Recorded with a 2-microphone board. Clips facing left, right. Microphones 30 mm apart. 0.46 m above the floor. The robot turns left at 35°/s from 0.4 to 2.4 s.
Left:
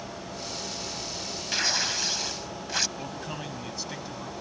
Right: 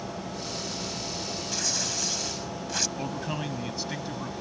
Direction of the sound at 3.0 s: 15° right (ahead or behind).